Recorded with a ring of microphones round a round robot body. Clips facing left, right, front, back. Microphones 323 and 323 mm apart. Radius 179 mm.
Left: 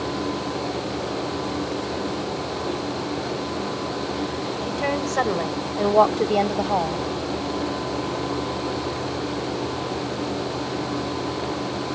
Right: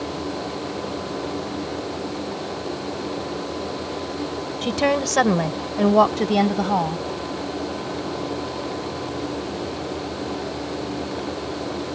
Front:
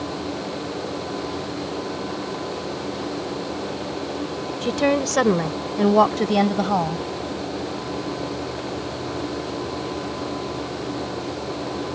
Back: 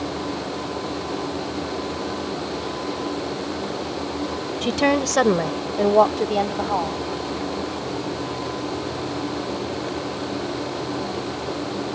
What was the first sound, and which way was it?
A woman speaking, 110° right.